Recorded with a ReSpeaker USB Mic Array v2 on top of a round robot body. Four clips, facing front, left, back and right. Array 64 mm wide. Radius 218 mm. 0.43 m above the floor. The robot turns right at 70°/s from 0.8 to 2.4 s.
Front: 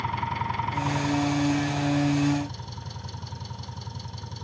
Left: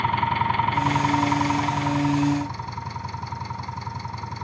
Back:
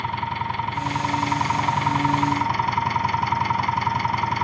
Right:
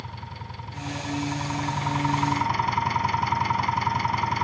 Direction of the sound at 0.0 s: 100° left.